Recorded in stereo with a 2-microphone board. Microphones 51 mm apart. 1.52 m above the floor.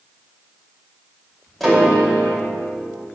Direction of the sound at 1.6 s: Centre (ahead or behind).